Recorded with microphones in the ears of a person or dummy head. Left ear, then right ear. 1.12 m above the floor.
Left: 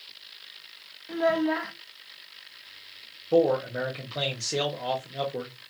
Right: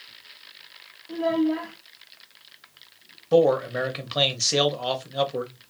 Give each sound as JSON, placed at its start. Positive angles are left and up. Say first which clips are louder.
{"t": 1.1, "sound": "a child speaking", "louder": "even", "side_deg": 60, "distance_m": 0.7}
{"t": 3.3, "sound": "a man speaking", "louder": "right 3 dB", "side_deg": -30, "distance_m": 1.0}